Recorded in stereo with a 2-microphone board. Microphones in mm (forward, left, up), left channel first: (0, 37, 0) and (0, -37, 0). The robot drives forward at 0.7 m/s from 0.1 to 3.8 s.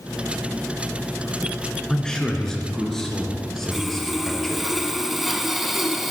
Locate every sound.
1.9 s a man speaking: 10° left (ahead or behind), 1.8 m; by 4.7 s 5° left (ahead or behind), 3 m
3.7 s sawing: 5° right (ahead or behind), 1.0 m